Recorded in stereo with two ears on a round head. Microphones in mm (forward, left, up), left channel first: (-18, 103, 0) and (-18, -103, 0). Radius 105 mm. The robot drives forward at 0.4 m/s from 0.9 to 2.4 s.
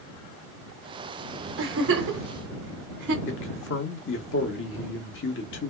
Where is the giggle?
65° right (ahead or behind), 1.2 m; by 3.1 s 55° right (ahead or behind), 1.4 m.